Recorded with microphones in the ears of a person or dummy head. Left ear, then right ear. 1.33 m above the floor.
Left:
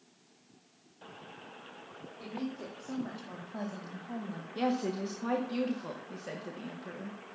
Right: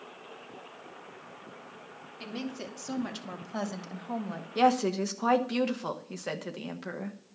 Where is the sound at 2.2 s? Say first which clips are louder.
Right 2 dB; 80° right, 2.5 m; by 4.5 s 35° right (ahead or behind), 1.4 m.